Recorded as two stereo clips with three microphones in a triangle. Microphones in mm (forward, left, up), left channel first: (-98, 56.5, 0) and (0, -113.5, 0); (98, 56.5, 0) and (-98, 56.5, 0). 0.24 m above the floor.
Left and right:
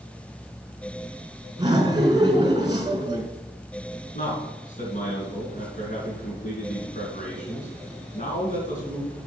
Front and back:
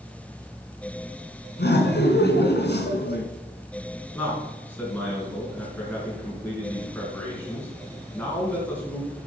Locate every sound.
1.6 s laughter: 5° left, 2.5 m
4.1 s a man speaking: 80° left, 3.5 m